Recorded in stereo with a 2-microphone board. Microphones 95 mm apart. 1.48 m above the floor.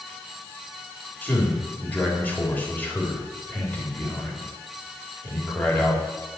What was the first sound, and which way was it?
A man speaking, 15° left (ahead or behind).